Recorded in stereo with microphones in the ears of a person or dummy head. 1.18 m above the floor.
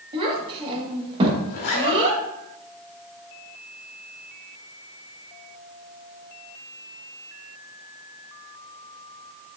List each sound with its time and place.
0.1 s a child speaking: 35° right (ahead or behind), 1.1 m
1.5 s a zipper: 45° left (ahead or behind), 1.8 m